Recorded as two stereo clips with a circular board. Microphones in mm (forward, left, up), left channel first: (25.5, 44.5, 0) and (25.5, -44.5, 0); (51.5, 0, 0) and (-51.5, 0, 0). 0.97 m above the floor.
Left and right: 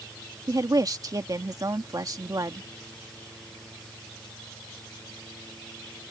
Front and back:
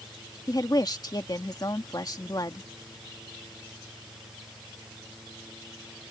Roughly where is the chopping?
I don't hear chopping.